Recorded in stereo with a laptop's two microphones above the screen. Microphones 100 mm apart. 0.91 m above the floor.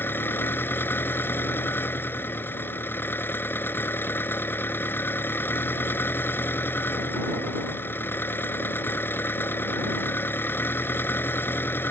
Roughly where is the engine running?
Left.